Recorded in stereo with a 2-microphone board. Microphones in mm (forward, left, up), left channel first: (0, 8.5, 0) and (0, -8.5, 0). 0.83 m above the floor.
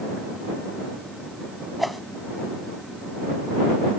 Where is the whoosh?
5° right (ahead or behind).